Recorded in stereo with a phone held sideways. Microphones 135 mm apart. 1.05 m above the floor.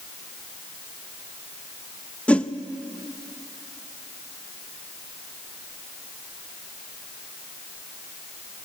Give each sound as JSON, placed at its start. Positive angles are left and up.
{"t": 2.3, "sound": "a whoosh", "side_deg": 10, "distance_m": 0.5}